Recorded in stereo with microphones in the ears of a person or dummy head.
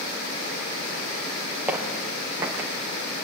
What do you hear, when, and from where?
1.7 s footsteps: 5° right (ahead or behind), 5 m; by 2.7 s 15° right (ahead or behind), 4.5 m